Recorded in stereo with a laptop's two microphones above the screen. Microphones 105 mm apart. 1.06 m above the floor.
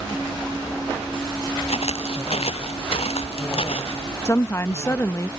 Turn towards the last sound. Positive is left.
turn(degrees=25)  # may be behind; listen again after turning